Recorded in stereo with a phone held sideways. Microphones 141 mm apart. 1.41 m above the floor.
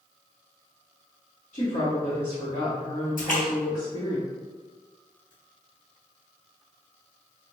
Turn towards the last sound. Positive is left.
turn(degrees=75)  # may be behind; listen again after turning